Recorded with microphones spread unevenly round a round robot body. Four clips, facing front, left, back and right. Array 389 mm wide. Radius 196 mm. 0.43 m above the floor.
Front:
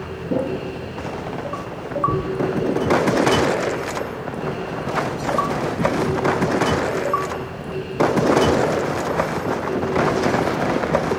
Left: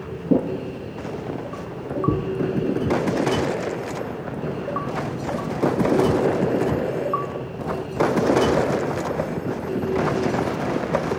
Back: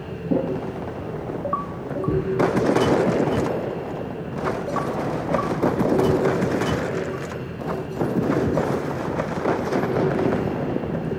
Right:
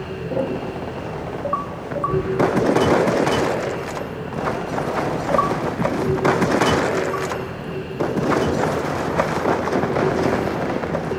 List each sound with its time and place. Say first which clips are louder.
0.3 s a drawer: left 3 dB, even; 100° left, 6.5 m